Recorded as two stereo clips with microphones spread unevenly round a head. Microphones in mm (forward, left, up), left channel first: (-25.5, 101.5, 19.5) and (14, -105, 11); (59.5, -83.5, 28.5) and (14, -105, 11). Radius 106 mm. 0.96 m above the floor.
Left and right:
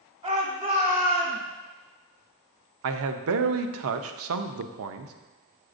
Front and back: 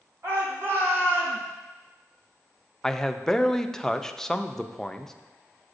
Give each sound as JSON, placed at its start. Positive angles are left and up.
{"t": 0.2, "sound": "a shout", "azimuth_deg": -145, "distance_m": 2.5}
{"t": 2.8, "sound": "a man speaking", "azimuth_deg": -65, "distance_m": 0.6}